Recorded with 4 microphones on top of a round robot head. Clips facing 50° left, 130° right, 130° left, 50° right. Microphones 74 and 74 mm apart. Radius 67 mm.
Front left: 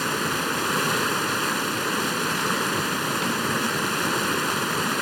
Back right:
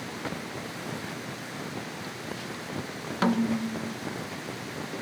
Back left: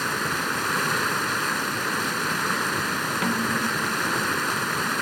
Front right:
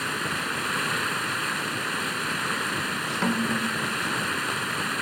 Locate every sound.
0.0 s running water: 55° left
3.2 s a snare drum: 120° right